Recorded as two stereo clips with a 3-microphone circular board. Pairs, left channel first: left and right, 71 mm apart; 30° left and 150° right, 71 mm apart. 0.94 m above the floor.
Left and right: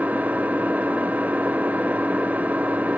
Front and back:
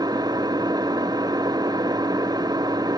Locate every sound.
0.0 s an engine running: 155° right, 1.3 m